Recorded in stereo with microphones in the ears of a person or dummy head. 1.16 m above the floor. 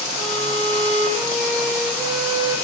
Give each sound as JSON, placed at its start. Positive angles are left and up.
{"t": 0.2, "sound": "a violin", "side_deg": 0, "distance_m": 7.5}